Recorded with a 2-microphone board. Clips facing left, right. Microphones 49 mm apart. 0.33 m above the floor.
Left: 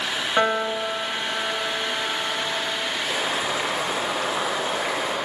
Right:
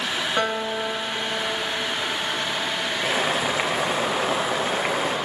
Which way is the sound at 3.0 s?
35° right (ahead or behind).